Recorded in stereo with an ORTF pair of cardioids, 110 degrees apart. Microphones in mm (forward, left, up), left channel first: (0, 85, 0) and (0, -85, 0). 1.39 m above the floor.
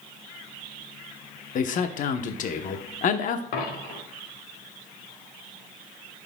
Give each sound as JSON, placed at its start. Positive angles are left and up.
{"t": 1.6, "sound": "a man speaking", "azimuth_deg": 50, "distance_m": 0.9}
{"t": 3.5, "sound": "a dropped coin", "azimuth_deg": 70, "distance_m": 3.0}